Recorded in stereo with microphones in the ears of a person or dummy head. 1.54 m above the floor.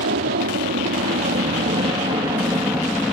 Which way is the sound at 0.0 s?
55° right (ahead or behind).